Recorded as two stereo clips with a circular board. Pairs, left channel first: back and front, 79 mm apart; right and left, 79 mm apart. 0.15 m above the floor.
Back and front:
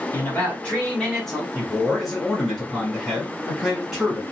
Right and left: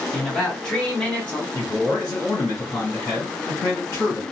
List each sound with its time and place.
0.1 s a man speaking: 170° right, 1.3 m; by 1.4 s 85° right, 1.3 m
1.5 s a man speaking: 85° right, 1.7 m